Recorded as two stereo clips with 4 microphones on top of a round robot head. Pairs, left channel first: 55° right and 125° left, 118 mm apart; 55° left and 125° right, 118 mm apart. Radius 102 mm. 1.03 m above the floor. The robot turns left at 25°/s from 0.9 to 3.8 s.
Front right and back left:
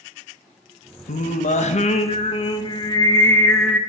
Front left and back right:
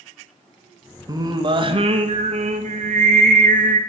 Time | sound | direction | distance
1.1 | singing | 65° right | 0.8 m